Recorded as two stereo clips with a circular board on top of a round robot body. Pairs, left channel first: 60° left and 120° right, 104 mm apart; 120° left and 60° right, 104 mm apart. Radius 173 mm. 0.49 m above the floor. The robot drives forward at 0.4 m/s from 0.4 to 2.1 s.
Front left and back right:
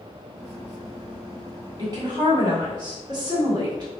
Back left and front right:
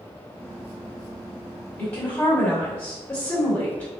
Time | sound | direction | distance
1.8 | a woman speaking | 175° right | 1.6 m